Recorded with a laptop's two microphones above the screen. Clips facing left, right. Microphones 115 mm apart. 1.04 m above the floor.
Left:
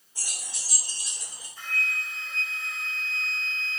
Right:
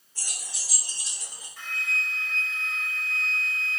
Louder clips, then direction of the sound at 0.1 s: Even; 15° left (ahead or behind).